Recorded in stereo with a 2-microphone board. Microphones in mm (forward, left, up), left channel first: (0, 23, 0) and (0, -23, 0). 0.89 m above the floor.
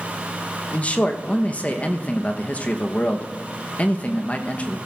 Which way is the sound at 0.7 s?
30° left (ahead or behind).